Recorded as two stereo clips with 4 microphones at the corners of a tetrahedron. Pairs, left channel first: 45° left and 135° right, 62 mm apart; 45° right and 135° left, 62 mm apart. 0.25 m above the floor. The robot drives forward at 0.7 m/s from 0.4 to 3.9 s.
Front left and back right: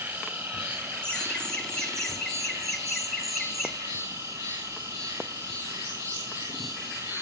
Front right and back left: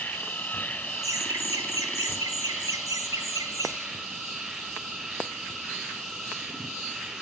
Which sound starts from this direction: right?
An insect, at 0.0 s.